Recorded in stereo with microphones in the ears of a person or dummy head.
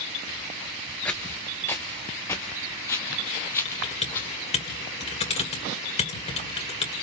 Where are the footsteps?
10° left (ahead or behind), 1.4 m; by 4.3 s 15° left (ahead or behind), 3 m.